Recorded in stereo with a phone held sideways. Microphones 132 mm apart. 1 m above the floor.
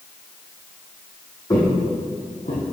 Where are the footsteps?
30° left (ahead or behind), 2.0 m; by 2.6 s 65° left (ahead or behind), 2 m.